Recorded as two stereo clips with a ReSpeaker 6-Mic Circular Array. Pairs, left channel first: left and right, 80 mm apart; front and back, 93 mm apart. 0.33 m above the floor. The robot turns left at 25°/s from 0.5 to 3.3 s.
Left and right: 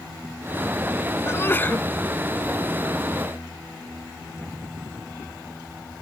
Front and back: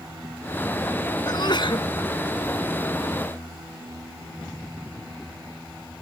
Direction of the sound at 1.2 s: 35° left.